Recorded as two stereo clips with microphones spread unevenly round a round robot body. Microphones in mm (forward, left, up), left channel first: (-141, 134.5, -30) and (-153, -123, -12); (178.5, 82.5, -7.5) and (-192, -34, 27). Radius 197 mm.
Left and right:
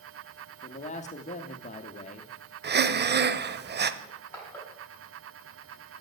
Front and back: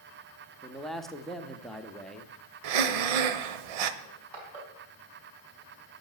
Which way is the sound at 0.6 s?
95° left.